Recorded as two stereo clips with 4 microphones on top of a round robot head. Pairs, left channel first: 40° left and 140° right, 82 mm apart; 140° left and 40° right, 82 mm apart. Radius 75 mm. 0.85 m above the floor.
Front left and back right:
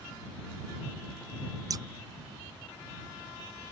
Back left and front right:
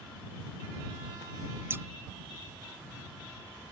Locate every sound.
1.7 s scissors: 100° right